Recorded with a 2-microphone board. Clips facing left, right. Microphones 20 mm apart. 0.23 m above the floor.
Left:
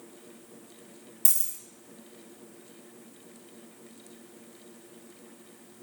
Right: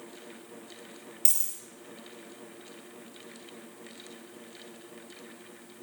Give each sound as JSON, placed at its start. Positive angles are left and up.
{"t": 1.2, "sound": "a dropped coin", "side_deg": -20, "distance_m": 2.0}